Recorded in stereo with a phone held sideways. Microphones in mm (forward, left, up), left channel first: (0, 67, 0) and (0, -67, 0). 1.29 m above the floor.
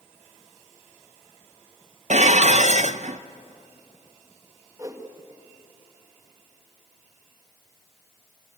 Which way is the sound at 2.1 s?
60° right (ahead or behind).